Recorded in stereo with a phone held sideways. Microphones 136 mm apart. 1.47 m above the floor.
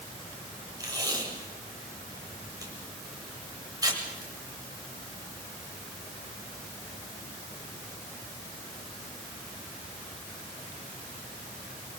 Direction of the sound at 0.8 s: 25° right (ahead or behind).